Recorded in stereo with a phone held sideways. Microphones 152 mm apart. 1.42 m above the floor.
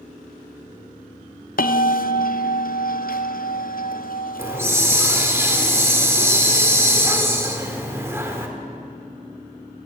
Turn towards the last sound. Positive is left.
turn(degrees=-15)  # may be behind; listen again after turning